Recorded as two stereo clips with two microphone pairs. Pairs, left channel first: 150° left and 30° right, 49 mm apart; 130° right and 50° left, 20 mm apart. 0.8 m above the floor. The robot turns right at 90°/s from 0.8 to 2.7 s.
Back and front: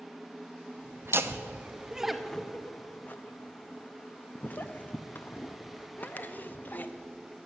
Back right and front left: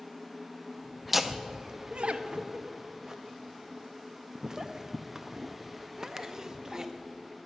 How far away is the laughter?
About 0.6 m.